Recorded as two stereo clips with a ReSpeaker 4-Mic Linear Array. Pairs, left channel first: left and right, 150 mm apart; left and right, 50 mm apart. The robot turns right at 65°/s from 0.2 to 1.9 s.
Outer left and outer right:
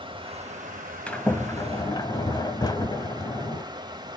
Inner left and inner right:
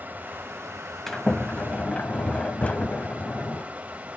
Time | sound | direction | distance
0.0 | running water | 140° right | 1.3 m
1.1 | a sliding door | 10° left (ahead or behind) | 0.8 m